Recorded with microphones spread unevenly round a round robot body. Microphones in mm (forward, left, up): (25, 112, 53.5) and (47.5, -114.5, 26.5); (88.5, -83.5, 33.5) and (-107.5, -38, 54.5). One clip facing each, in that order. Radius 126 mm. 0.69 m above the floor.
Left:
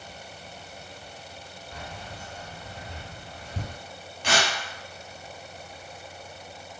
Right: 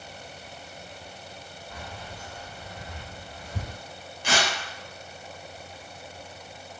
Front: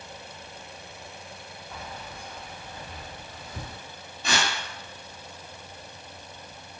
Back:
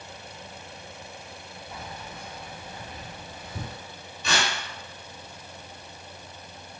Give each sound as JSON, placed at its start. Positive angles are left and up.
{"t": 1.7, "sound": "keys jangling", "azimuth_deg": -120, "distance_m": 1.3}
{"t": 4.2, "sound": "tearing paper", "azimuth_deg": 140, "distance_m": 1.0}